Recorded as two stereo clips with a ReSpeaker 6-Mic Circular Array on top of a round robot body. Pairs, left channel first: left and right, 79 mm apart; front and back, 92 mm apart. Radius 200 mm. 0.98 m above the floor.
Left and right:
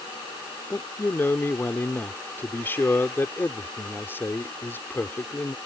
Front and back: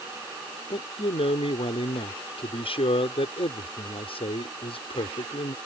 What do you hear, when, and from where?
0.7 s a man speaking: 25° left